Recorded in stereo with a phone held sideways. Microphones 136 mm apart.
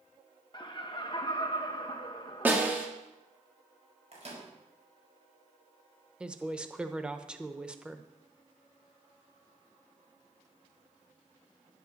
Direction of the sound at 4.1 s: 55° right (ahead or behind).